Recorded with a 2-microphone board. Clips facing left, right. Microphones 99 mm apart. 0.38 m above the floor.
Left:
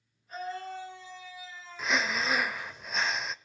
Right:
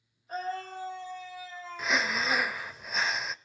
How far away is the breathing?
About 0.5 m.